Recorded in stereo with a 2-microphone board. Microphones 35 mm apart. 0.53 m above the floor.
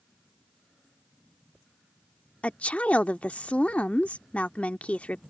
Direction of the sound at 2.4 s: 40° left (ahead or behind).